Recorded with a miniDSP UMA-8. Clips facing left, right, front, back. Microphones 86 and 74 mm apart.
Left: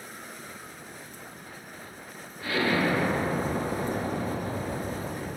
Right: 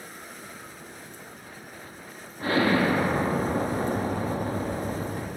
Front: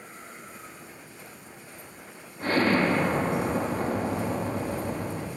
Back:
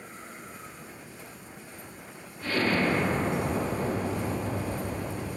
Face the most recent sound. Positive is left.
turn(degrees=-45)